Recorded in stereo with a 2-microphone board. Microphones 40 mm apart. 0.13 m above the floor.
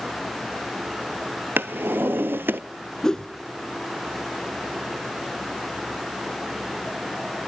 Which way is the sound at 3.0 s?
15° left (ahead or behind).